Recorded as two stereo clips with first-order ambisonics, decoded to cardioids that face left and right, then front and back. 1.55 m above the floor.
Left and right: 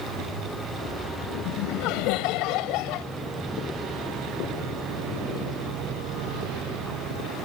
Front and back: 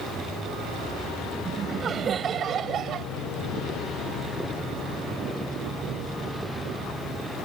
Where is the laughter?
110° left; by 3.1 s 125° left.